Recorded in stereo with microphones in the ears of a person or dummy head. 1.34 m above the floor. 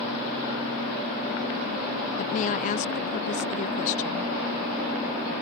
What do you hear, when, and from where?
2.2 s a woman speaking: 40° left (ahead or behind)